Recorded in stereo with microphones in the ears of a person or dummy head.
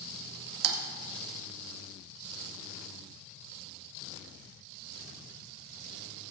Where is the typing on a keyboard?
75° right (ahead or behind), 1.9 m.